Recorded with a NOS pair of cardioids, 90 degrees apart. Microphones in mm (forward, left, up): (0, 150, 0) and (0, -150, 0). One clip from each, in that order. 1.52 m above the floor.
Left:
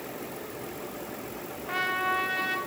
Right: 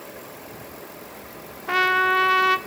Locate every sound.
1.7 s a trumpet: 50° right, 0.8 m